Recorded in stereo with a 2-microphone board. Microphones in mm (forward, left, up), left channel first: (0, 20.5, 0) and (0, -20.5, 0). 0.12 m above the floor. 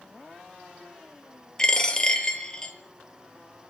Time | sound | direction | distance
1.6 | a dropped coin | 15° left (ahead or behind) | 0.7 m